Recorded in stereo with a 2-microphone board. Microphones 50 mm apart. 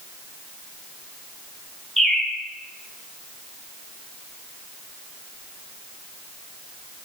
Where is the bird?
5° left (ahead or behind), 1.0 m.